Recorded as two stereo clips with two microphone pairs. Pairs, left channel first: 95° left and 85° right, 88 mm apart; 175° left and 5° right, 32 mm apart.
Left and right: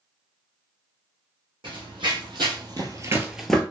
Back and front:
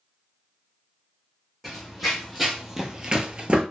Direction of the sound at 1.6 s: 100° right.